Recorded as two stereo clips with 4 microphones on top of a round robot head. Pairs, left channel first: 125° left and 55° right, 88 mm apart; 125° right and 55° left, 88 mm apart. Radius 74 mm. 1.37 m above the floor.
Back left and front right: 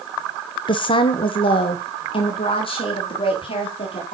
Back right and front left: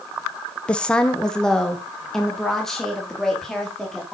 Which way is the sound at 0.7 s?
155° left.